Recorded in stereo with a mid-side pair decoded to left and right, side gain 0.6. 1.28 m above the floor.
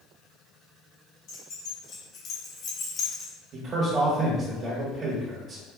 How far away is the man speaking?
About 1.4 m.